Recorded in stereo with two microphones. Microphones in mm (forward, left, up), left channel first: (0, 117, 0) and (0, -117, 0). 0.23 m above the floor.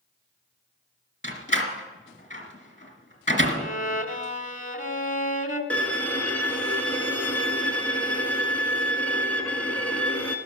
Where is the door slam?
35° left (ahead or behind), 2 m.